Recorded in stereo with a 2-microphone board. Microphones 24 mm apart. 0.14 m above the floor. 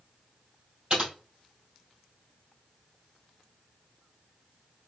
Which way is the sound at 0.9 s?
40° right (ahead or behind).